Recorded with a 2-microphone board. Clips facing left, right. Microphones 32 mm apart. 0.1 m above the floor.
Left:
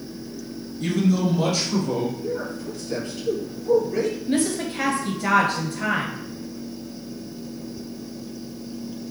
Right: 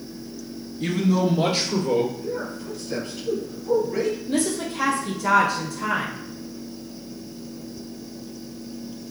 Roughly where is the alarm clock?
I don't hear an alarm clock.